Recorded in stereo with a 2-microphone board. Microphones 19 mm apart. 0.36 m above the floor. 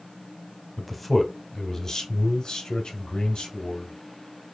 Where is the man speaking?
Centre (ahead or behind), 1.1 m; by 3.9 s 60° left (ahead or behind), 1.9 m.